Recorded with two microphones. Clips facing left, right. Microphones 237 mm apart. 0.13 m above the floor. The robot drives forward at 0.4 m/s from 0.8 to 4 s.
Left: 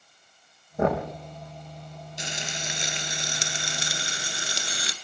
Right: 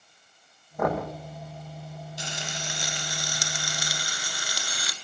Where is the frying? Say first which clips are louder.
Left 2 dB; 20° left (ahead or behind), 2.5 m; by 4.9 s 25° left (ahead or behind), 1.9 m.